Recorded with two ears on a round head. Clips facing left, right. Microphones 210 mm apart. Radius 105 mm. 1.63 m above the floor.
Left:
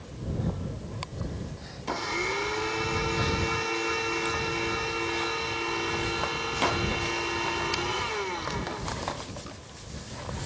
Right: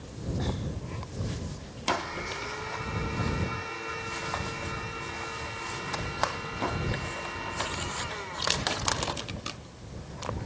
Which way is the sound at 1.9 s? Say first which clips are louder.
Left 2 dB; 65° left (ahead or behind).